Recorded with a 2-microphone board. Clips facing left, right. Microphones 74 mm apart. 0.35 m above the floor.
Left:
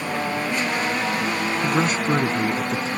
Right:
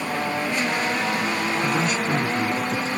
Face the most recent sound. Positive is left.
turn(degrees=40)  # may be behind; listen again after turning